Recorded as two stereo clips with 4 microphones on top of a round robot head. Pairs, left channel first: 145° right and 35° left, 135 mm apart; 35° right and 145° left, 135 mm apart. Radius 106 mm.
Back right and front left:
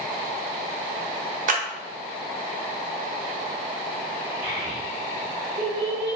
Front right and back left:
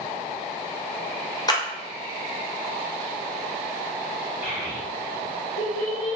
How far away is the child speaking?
About 1.7 m.